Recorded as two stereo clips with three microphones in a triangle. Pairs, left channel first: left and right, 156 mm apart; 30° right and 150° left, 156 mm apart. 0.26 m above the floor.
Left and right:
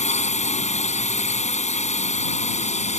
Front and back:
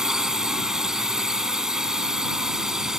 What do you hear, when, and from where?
0.0 s a drone: 65° left